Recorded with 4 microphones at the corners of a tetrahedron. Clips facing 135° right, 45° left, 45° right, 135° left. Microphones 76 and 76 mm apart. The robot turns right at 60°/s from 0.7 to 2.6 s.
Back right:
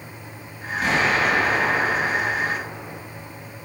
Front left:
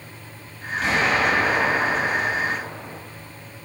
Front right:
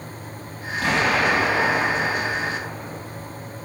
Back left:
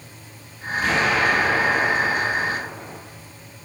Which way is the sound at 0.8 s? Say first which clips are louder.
Even, even; 60° right.